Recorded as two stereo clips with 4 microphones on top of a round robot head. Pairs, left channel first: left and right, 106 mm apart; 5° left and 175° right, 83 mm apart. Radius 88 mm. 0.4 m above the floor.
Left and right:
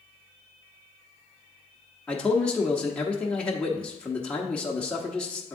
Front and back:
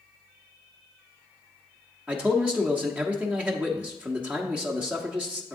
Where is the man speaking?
155° left, 0.9 m.